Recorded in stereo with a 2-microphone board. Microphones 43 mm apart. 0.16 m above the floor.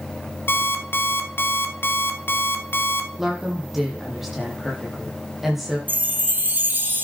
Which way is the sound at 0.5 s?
60° left (ahead or behind).